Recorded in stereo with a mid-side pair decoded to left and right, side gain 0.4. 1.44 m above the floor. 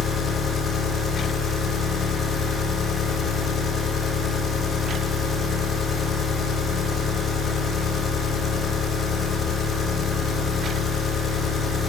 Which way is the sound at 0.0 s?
65° left.